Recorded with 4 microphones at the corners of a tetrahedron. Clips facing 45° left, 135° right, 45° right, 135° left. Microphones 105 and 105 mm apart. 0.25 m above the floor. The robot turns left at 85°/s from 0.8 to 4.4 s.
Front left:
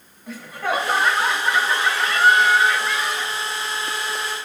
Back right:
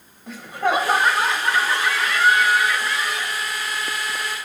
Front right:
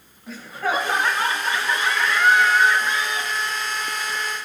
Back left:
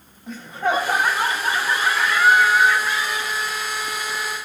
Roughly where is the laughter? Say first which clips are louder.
Back right 3 dB, back left 3 dB; behind.